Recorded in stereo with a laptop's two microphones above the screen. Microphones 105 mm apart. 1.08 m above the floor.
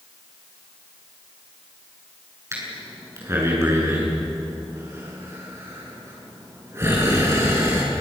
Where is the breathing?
30° right (ahead or behind), 7.5 m.